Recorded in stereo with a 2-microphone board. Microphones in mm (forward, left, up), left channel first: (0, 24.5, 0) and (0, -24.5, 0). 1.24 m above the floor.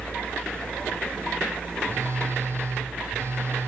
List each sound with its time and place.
1.8 s a phone buzzing: 60° right (ahead or behind), 5 m